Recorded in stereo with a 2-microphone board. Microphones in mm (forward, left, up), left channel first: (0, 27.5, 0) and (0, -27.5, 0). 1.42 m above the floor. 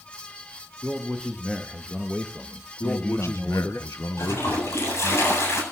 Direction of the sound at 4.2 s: 55° left (ahead or behind).